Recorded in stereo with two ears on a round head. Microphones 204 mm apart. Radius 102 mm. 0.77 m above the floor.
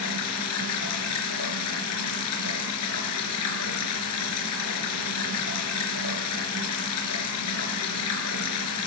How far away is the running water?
About 4 m.